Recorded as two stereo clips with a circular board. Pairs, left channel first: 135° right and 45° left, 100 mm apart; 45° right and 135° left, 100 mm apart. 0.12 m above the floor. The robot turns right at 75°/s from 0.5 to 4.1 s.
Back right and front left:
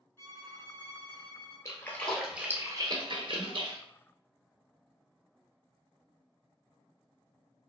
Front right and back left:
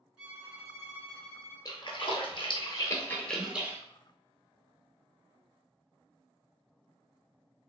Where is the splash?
85° right, 0.6 m; by 3.8 s 75° left, 0.6 m.